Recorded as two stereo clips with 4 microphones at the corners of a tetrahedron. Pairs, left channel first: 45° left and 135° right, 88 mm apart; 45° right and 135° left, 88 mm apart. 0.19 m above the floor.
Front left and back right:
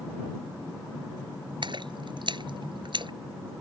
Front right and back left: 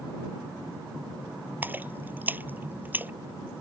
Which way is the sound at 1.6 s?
155° right.